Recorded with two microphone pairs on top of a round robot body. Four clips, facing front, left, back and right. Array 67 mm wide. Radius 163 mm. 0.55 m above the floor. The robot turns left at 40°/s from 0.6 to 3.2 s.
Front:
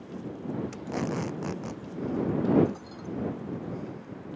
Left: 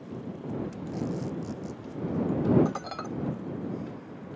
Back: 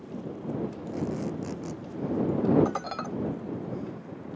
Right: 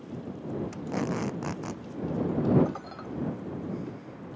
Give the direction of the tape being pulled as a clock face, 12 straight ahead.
1 o'clock.